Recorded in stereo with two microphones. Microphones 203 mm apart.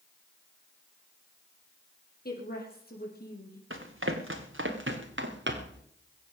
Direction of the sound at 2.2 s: 50° left (ahead or behind).